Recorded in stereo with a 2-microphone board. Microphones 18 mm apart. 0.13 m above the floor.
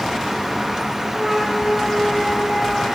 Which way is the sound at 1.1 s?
Centre (ahead or behind).